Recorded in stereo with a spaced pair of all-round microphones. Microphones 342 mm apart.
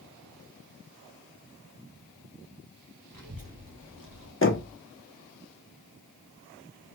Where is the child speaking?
75° right (ahead or behind), 2 m; by 4.3 s 60° right (ahead or behind), 1.1 m.